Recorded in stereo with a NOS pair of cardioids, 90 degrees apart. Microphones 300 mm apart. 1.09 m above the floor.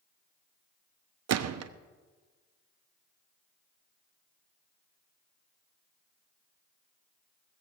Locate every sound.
1.3 s a gunshot: 60° right, 0.8 m